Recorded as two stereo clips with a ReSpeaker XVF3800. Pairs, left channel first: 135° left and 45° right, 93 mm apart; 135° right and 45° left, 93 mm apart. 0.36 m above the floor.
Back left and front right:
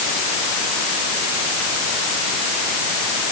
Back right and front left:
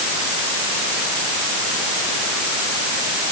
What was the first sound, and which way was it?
Only background noise.